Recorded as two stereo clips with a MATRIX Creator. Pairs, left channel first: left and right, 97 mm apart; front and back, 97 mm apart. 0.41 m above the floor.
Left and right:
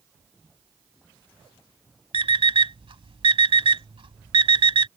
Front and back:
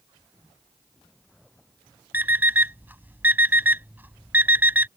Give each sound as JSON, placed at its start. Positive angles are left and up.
{"t": 2.1, "sound": "an alarm clock", "azimuth_deg": -110}